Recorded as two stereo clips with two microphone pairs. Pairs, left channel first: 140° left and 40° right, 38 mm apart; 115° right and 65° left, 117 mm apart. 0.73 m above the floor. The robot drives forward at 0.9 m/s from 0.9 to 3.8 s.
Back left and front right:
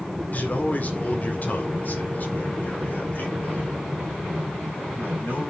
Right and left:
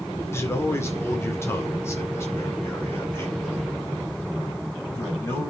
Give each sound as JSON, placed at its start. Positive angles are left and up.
{"t": 0.3, "sound": "a man speaking", "azimuth_deg": 180, "distance_m": 2.0}